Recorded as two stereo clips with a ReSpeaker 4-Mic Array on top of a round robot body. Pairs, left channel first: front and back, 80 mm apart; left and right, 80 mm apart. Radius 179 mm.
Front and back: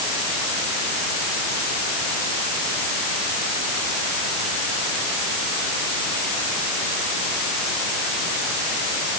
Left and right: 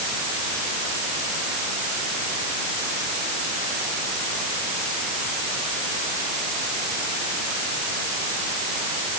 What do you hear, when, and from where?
Only background noise.